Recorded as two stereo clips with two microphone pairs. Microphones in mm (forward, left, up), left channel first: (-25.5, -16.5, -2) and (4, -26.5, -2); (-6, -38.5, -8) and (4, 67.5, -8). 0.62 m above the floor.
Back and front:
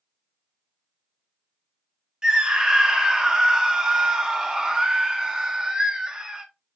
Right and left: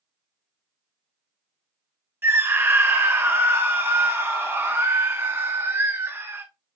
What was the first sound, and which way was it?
A scream, 35° left.